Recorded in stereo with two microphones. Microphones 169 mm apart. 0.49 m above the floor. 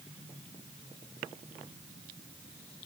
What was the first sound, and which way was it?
Only background noise.